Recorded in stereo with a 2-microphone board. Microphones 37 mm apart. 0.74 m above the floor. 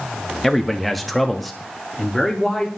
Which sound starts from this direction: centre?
A man speaking, at 0.4 s.